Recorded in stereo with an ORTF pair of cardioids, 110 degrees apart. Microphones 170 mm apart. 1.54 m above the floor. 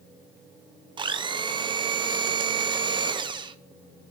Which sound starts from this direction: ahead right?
A blender, at 1.0 s.